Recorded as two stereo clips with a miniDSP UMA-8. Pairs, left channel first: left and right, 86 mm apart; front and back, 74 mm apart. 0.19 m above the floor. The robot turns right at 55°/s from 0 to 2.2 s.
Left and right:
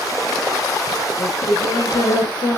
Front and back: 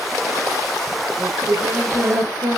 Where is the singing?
90° left, 8.5 m; by 2.6 s 145° left, 8.5 m.